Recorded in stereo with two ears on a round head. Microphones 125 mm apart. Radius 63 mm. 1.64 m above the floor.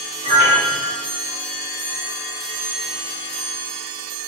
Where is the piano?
65° right (ahead or behind), 1.6 m.